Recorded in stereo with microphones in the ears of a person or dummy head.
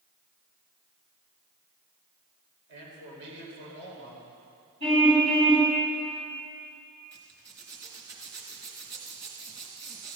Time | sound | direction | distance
2.7 | a man speaking | 65° right (ahead or behind) | 5.5 m
4.8 | a car horn | 30° right (ahead or behind) | 5.5 m
7.1 | a zipper | 15° right (ahead or behind) | 2.5 m